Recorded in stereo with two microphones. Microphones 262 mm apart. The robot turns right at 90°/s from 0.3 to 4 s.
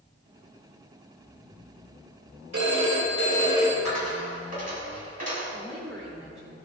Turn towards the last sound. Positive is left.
turn(degrees=15)  # may be behind; listen again after turning